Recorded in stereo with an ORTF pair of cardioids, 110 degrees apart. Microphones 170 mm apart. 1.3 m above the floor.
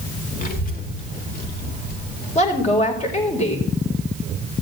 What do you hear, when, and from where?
0.4 s a child speaking: 50° left, 3.5 m; by 2.8 s 60° left, 6 m
2.4 s a woman speaking: 40° left, 5.5 m